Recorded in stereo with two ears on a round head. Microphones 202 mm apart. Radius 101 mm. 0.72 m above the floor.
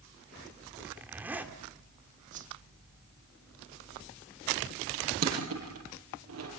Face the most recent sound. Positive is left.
turn(degrees=-75)  # may be behind; listen again after turning